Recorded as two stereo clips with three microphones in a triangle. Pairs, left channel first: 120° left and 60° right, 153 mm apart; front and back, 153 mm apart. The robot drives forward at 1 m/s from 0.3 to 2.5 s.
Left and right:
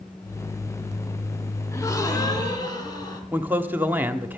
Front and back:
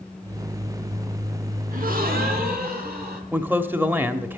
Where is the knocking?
No knocking in this recording.